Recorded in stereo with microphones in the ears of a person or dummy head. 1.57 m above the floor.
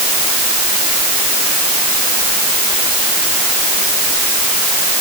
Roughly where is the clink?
I don't hear a clink.